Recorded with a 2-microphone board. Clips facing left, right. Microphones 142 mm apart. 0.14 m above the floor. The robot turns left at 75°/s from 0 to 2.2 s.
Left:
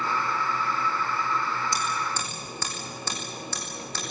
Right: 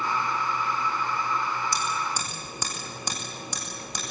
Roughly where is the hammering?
Left.